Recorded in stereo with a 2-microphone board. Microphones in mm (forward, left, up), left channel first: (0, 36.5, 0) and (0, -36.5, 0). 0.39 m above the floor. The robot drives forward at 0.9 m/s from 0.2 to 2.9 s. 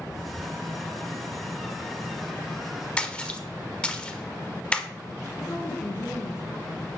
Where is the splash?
15° left (ahead or behind), 1.3 m.